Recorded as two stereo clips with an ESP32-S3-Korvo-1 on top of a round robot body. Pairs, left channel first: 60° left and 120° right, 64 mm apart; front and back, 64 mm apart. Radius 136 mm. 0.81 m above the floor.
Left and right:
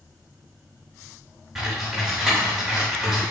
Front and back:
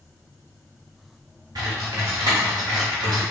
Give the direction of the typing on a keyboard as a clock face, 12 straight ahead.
7 o'clock.